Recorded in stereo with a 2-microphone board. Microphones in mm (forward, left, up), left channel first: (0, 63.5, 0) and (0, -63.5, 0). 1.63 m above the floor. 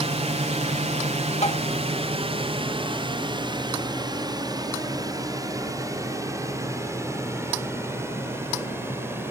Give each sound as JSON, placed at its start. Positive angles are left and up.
{"t": 0.0, "sound": "a drone", "side_deg": -55}
{"t": 1.4, "sound": "tapping", "side_deg": 60}